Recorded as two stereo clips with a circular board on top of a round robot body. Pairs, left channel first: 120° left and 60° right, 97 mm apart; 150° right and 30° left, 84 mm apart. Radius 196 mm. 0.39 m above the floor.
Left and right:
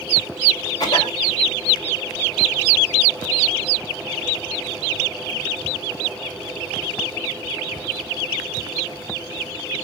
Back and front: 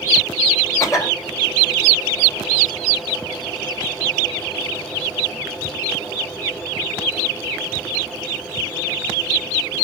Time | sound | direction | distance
0.8 | a cough | 165° left | 2.5 m